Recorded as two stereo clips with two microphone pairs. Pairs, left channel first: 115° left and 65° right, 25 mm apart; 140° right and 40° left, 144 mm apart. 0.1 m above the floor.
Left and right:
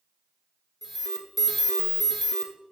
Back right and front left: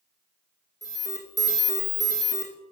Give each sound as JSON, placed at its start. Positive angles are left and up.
{"t": 0.8, "sound": "an alarm", "azimuth_deg": -115, "distance_m": 1.0}